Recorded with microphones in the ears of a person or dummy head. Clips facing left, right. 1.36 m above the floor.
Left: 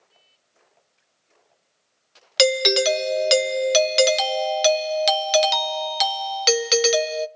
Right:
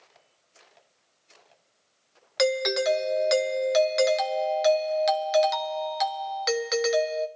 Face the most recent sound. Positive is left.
turn(degrees=45)  # may be behind; listen again after turning